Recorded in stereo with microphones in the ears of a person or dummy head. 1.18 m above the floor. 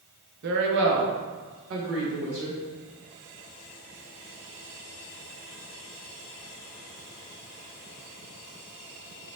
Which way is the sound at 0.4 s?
50° right (ahead or behind).